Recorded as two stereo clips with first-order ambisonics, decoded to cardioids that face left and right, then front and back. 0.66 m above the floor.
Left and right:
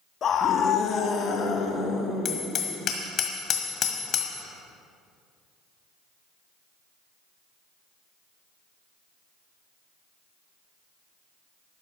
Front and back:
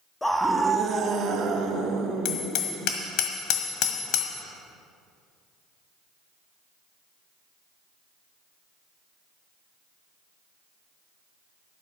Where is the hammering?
30° left, 1.5 m.